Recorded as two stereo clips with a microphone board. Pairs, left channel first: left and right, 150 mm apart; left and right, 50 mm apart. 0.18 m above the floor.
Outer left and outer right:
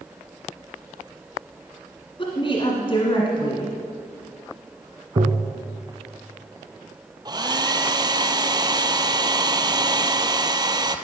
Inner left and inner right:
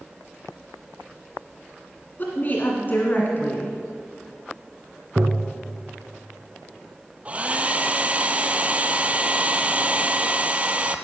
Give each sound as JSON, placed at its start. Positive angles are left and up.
{"t": 2.2, "sound": "a woman speaking", "side_deg": 40, "distance_m": 1.7}
{"t": 5.2, "sound": "tapping", "side_deg": -50, "distance_m": 1.3}
{"t": 7.2, "sound": "a hair dryer", "side_deg": -30, "distance_m": 0.7}